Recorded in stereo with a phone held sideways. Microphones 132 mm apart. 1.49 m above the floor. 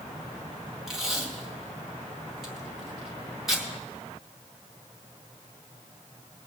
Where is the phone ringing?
I don't hear a phone ringing.